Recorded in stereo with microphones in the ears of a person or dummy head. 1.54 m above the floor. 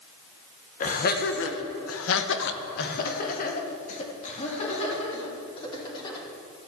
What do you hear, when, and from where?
0.8 s laughter: 40° left (ahead or behind), 1.7 m; by 6.2 s 30° left (ahead or behind), 5 m